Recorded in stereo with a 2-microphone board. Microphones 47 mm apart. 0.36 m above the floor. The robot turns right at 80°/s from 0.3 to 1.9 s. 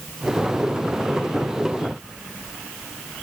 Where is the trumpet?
No trumpet in this recording.